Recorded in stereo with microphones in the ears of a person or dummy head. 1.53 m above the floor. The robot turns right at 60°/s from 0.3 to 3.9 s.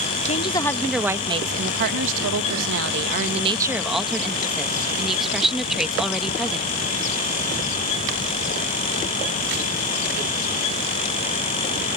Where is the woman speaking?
145° left; by 6.7 s straight ahead.